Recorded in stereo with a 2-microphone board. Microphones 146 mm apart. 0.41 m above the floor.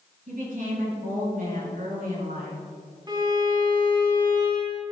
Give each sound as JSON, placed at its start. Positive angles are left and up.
{"t": 0.3, "sound": "a woman speaking", "side_deg": -65, "distance_m": 5.0}
{"t": 3.1, "sound": "a violin", "side_deg": -30, "distance_m": 3.0}